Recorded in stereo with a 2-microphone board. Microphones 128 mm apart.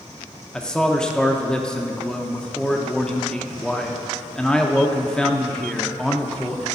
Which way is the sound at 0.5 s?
5° left (ahead or behind).